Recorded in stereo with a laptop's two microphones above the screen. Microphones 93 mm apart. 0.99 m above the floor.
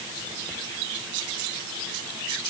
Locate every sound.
Only background noise.